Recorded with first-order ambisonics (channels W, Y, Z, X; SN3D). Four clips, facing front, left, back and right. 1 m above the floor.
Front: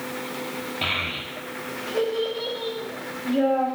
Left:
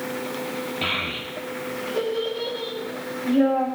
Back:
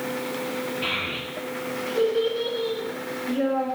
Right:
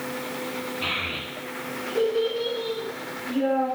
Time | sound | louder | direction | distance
0.8 | a child speaking | left 2 dB, front 4 dB | 40° left | 3.5 m